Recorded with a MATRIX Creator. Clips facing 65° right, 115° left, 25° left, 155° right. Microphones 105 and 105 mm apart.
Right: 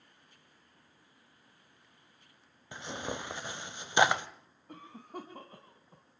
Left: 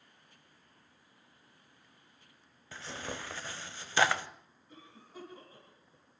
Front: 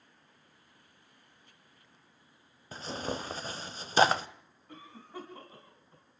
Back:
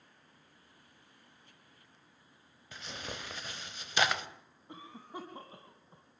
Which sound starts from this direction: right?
A cough, at 4.7 s.